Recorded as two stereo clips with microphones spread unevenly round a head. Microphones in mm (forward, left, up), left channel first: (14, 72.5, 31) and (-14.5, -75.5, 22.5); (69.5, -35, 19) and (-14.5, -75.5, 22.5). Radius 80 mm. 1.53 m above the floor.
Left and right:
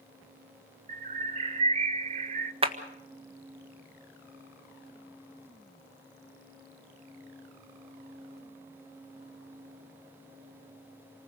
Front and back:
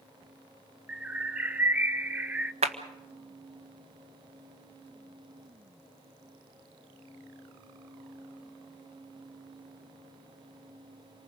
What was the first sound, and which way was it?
A bird, 100° right.